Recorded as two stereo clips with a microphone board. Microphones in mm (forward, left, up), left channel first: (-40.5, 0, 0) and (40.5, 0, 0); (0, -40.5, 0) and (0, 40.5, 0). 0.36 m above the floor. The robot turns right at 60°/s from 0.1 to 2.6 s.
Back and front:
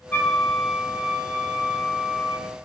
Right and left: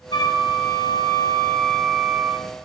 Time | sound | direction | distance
0.1 | a flute | 110° right | 0.5 m